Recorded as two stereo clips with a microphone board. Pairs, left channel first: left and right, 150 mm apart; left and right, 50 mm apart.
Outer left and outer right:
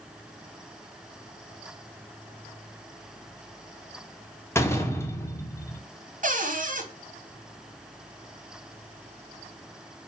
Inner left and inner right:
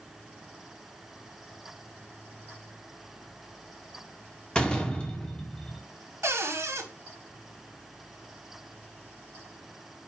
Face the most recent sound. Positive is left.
turn(degrees=-60)  # may be behind; listen again after turning